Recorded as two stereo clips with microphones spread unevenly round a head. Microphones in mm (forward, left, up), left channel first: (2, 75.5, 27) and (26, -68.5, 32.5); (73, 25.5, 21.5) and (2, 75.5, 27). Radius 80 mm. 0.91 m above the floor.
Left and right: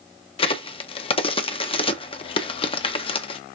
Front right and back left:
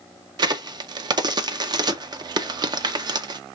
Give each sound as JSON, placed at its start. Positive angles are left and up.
{"t": 0.4, "sound": "a crack", "azimuth_deg": 135, "distance_m": 0.6}